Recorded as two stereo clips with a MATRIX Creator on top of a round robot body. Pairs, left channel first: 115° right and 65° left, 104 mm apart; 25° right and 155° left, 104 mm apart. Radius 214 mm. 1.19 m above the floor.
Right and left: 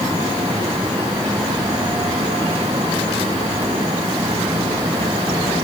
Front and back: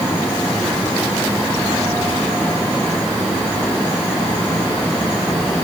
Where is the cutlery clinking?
No cutlery clinking in this recording.